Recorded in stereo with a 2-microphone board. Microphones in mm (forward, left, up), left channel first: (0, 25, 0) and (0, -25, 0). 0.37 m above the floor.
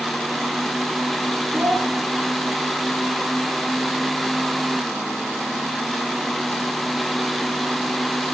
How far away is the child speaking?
About 5.5 m.